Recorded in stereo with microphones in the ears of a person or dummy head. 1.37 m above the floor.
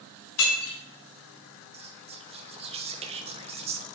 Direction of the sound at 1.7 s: 30° right (ahead or behind).